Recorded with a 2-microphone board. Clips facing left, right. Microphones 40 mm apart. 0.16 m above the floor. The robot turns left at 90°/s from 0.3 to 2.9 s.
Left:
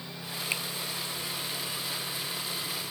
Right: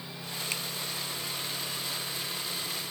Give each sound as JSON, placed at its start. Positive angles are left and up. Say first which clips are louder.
{"t": 0.5, "sound": "a finger snap", "louder": "left 3 dB", "side_deg": 20}